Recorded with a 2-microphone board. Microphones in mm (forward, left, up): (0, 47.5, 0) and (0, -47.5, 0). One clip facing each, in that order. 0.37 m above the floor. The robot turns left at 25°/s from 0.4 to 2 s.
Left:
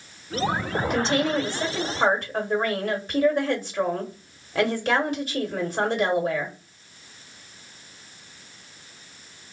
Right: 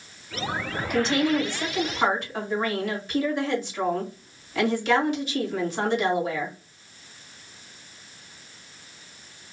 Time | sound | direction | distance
0.9 | a woman speaking | 30° left (ahead or behind) | 1.4 m